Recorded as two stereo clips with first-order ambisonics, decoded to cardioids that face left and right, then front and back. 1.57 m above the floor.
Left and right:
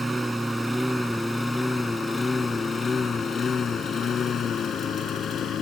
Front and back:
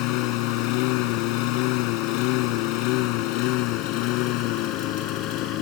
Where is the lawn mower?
10° right; by 5.6 s 30° left.